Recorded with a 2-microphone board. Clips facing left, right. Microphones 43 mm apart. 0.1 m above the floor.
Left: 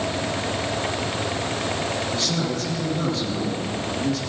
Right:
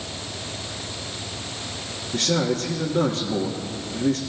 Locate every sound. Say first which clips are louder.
2.1 s a man speaking: right 2 dB; 60° right (ahead or behind), 3 m